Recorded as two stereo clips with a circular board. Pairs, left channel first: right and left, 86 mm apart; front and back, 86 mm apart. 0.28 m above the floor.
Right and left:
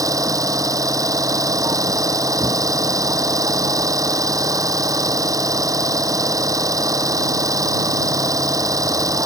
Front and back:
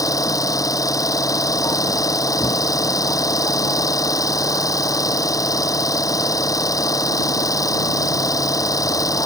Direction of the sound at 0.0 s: 45° left.